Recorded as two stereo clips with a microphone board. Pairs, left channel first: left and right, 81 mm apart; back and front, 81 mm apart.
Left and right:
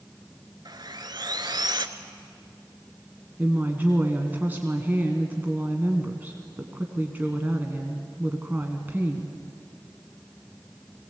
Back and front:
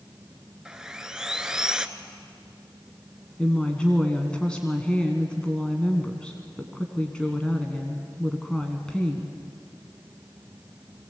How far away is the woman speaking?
About 1.5 m.